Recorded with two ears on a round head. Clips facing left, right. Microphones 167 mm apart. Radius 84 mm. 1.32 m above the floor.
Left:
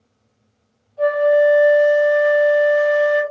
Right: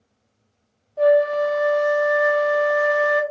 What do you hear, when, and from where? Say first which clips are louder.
1.0 s a flute: left 2 dB; 80° right, 1.4 m